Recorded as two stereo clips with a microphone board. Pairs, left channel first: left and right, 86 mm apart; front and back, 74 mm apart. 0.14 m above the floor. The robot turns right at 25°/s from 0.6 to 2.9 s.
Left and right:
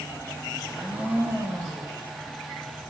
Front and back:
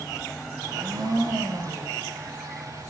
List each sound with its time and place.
0.6 s a blender: 170° right, 6.5 m; by 2.0 s 130° right, 6.5 m